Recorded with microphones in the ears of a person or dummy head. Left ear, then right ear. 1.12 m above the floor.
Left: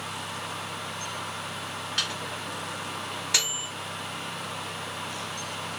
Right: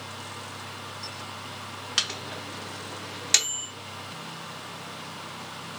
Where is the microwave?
25° right (ahead or behind), 0.8 m.